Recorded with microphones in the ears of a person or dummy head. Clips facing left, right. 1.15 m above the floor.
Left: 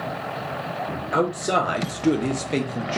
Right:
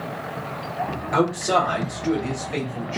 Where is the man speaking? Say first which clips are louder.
Right 2 dB; 5° left (ahead or behind), 0.7 m; by 3.0 s 45° left (ahead or behind), 0.8 m.